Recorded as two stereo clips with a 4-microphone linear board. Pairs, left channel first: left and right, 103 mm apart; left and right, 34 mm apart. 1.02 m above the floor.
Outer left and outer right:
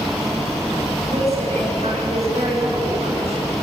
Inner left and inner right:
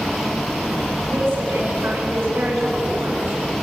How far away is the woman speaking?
About 9 m.